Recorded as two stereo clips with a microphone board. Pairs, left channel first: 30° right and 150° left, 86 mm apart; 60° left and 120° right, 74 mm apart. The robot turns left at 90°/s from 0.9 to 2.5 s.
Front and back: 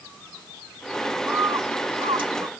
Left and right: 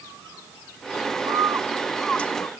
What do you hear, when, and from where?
1.3 s a bird: 145° right; by 2.5 s 105° left